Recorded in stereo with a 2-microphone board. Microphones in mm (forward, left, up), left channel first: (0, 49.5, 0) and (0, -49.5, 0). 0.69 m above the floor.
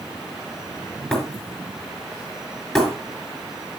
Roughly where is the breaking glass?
Centre.